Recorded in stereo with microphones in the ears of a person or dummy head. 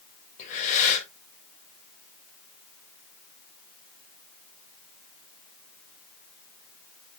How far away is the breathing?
About 3.5 m.